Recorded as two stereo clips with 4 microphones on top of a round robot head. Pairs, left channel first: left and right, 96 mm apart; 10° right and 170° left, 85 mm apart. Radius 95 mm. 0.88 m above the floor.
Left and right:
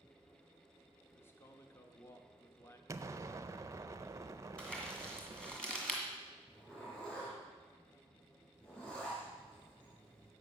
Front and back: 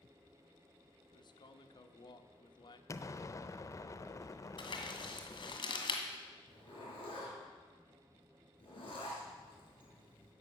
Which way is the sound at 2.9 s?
45° right.